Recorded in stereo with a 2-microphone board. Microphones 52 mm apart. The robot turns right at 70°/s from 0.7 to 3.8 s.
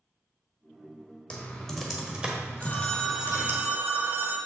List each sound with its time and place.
1.3 s typing on a keyboard: 25° left (ahead or behind), 1.3 m; by 3.6 s 35° right (ahead or behind), 1.3 m
2.6 s a phone ringing: 150° left, 1.1 m; by 4.4 s 125° right, 1.1 m